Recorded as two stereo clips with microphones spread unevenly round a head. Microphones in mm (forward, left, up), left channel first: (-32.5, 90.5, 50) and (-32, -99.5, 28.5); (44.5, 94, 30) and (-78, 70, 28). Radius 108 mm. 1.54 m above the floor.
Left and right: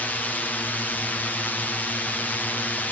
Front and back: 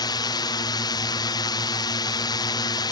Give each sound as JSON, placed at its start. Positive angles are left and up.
{"t": 0.0, "sound": "a drone", "azimuth_deg": 5}